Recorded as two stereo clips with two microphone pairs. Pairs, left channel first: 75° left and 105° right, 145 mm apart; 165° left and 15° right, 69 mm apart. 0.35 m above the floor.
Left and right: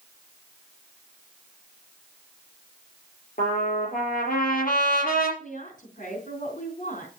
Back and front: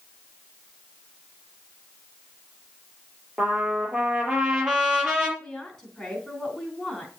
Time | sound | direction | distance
3.4 | a trumpet | 65° left | 5 m
5.4 | a woman speaking | 80° left | 3.5 m